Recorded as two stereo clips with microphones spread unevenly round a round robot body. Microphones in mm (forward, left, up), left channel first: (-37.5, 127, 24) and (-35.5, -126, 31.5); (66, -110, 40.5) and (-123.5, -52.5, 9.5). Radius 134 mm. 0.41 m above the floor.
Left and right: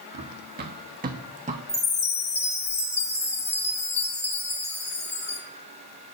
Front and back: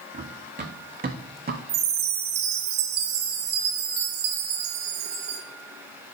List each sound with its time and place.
0.1 s running footsteps: 140° right, 2.5 m; by 1.6 s 155° right, 2 m
1.7 s a chime: 150° left, 1.9 m